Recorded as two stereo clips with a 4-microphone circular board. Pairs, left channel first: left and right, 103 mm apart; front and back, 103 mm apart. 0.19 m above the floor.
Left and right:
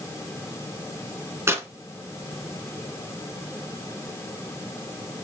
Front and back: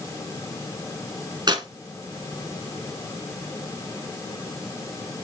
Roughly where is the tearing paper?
Behind right.